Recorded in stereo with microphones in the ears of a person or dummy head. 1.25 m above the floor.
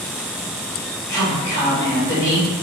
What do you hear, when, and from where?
1.1 s a woman speaking: 20° left (ahead or behind), 1.8 m